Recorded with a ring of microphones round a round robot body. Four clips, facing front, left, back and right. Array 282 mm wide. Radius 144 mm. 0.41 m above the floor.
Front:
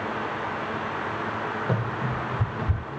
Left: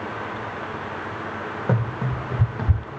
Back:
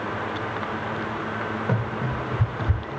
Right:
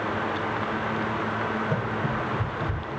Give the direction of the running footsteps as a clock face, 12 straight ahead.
9 o'clock.